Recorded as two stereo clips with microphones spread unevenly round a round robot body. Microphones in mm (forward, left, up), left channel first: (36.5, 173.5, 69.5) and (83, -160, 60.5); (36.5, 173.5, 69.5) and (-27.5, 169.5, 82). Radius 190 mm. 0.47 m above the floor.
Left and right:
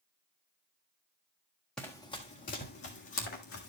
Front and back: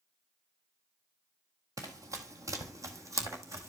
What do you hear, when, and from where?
1.8 s running footsteps: 175° right, 0.8 m; by 3.7 s 150° left, 1.8 m